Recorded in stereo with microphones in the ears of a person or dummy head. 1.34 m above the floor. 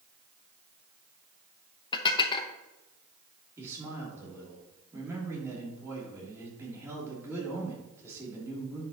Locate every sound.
1.9 s dishes clattering: 25° left (ahead or behind), 0.8 m
3.6 s a man speaking: 20° right (ahead or behind), 3 m